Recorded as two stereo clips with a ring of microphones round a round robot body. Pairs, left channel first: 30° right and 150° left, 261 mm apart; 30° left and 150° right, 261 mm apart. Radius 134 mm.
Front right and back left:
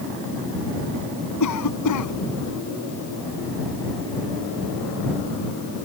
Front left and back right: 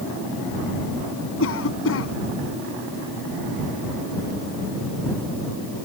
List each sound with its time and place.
1.4 s a cough: 10° right